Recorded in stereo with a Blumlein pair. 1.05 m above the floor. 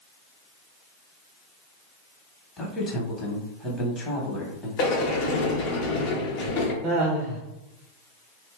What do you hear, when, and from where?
2.6 s a man speaking: 15° left, 1.0 m
4.8 s a sliding door: 40° left, 0.9 m
6.8 s laughter: 25° right, 0.6 m